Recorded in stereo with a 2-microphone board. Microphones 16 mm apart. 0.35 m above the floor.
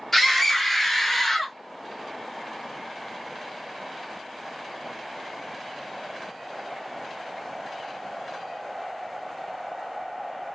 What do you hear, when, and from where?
0.1 s a scream: 15° left (ahead or behind), 2 m; by 1.6 s 25° left (ahead or behind), 1.5 m